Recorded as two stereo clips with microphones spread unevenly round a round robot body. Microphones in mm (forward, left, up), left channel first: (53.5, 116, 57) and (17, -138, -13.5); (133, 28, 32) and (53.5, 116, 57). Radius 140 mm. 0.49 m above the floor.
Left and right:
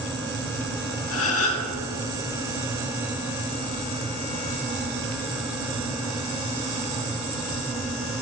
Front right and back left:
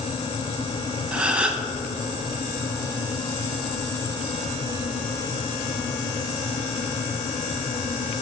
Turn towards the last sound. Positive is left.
turn(degrees=55)